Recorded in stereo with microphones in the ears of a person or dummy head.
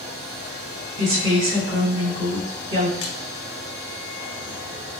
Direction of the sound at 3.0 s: 65° left (ahead or behind).